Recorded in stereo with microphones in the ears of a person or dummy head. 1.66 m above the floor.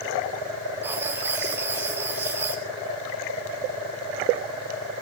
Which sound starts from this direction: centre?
Writing, at 0.8 s.